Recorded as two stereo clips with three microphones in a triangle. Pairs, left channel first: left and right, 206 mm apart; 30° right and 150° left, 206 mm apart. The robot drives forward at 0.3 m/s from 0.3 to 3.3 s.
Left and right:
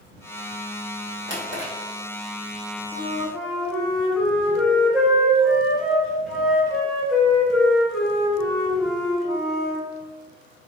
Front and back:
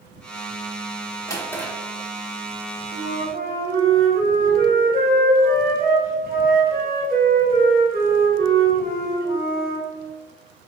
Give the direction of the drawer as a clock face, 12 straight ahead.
4 o'clock.